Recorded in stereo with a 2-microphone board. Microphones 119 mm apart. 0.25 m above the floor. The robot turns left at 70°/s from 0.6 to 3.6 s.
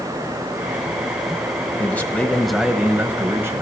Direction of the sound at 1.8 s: 20° left (ahead or behind).